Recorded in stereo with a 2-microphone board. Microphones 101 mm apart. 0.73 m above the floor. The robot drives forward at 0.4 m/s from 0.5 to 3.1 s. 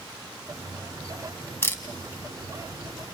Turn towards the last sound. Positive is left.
turn(degrees=15)  # may be behind; listen again after turning